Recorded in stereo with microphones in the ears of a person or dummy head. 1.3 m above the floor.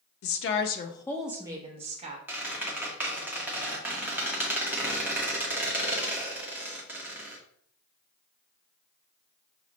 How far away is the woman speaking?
About 0.7 m.